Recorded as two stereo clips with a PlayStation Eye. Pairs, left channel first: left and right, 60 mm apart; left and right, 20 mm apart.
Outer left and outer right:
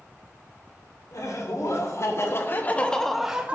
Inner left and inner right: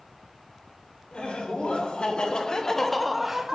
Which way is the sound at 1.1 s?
70° left (ahead or behind).